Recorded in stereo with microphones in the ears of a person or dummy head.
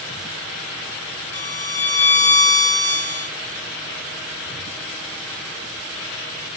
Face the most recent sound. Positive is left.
turn(degrees=10)  # may be behind; listen again after turning